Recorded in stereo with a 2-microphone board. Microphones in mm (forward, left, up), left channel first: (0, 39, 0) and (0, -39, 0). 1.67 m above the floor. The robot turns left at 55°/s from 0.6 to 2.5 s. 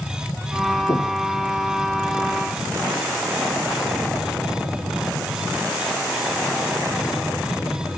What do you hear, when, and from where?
0.9 s breathing: 50° left (ahead or behind), 3 m; by 1.2 s 35° left (ahead or behind), 3 m